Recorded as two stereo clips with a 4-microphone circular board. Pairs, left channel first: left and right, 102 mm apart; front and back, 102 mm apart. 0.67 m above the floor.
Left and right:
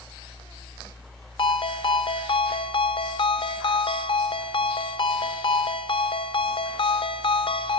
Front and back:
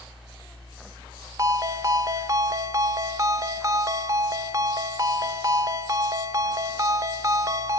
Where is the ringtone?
120° left, 0.8 m.